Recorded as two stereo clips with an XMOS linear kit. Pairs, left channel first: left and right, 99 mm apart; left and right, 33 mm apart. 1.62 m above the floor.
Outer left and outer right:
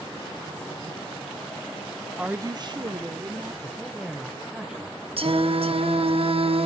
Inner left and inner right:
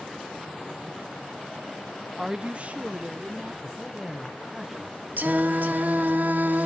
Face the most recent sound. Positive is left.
turn(degrees=-70)  # may be behind; listen again after turning